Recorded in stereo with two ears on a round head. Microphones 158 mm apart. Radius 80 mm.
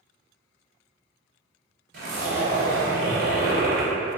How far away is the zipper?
About 1.1 m.